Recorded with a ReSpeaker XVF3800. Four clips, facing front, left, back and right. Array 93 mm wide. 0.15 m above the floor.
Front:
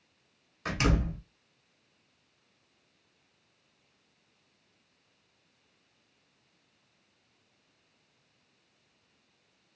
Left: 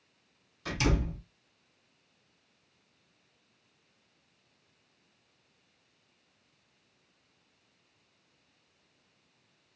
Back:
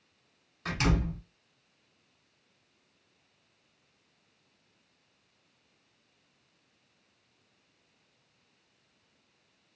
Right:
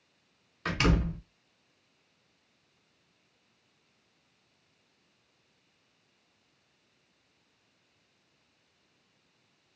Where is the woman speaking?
No woman speaking in this recording.